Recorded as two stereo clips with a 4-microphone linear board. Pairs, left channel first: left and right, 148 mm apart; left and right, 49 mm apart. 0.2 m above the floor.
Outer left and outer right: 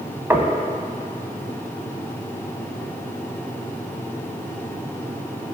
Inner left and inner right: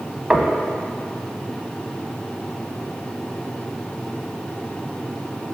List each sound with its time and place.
0.3 s knocking: 15° right (ahead or behind), 0.8 m